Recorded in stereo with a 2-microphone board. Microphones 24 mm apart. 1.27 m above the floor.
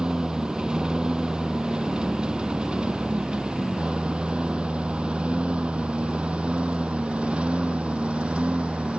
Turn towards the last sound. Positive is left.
turn(degrees=-70)  # may be behind; listen again after turning